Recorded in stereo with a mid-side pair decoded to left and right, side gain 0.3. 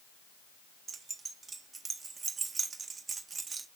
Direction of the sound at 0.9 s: 55° right.